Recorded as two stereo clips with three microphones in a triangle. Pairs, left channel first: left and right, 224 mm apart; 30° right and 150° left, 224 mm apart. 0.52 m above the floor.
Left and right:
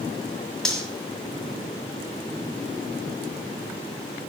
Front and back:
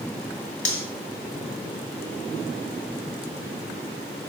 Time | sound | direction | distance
0.7 | cutlery clinking | straight ahead | 2 m